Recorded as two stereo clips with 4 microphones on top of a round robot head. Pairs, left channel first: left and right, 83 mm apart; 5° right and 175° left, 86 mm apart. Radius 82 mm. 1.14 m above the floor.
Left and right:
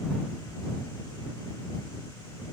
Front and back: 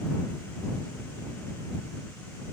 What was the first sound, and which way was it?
Only background noise.